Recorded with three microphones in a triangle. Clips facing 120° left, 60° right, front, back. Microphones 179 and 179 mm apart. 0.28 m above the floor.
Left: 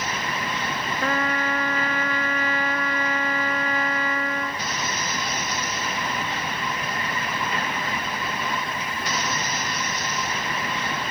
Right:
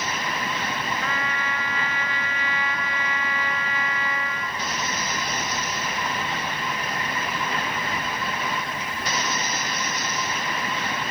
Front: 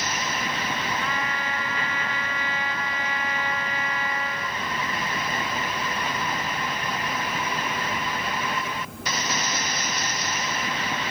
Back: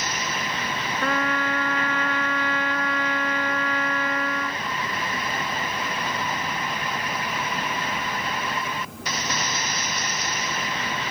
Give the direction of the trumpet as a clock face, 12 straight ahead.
7 o'clock.